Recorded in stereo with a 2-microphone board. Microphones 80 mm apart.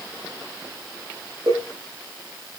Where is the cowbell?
65° right (ahead or behind), 9 m.